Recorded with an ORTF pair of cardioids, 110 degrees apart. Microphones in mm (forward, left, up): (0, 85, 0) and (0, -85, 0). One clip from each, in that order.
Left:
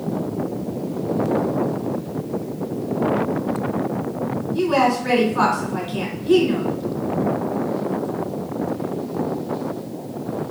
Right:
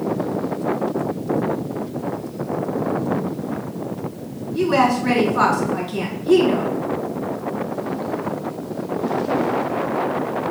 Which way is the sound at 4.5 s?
Straight ahead.